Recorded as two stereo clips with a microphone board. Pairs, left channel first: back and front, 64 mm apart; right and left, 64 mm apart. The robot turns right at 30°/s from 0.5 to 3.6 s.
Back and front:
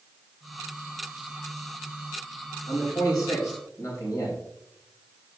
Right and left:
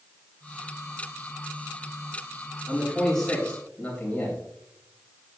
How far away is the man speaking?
About 3 m.